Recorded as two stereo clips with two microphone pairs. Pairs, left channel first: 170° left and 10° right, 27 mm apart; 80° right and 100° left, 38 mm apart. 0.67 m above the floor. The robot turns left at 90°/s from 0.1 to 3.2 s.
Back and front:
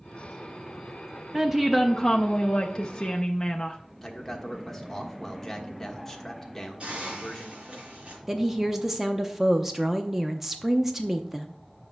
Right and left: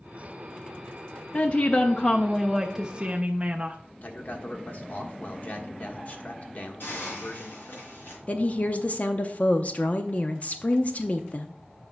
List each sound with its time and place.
1.3 s a woman speaking: 70° right, 0.6 m; by 3.8 s 120° left, 0.6 m
4.0 s a man speaking: 120° right, 1.2 m
6.8 s a hiss: 60° right, 3.5 m
8.3 s a woman speaking: 85° right, 0.6 m